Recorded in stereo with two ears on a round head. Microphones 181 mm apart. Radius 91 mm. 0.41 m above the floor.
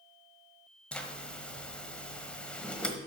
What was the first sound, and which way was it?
A zipper, 5° left (ahead or behind).